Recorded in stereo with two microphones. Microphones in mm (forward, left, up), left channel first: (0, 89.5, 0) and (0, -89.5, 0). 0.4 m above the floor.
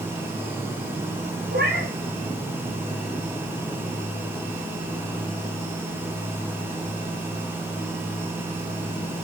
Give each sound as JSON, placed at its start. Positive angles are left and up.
{"t": 1.5, "sound": "a cat meowing", "side_deg": -80, "distance_m": 5.0}